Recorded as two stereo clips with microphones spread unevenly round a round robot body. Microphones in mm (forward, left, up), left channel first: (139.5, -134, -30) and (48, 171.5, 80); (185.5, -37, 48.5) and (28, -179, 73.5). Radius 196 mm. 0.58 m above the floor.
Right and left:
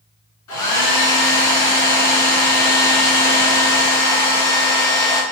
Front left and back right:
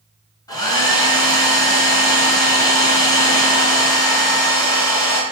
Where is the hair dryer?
35° right, 1.5 m.